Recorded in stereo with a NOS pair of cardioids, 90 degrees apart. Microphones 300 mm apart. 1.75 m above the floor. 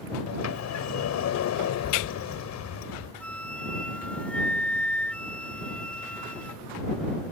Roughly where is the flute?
Ahead.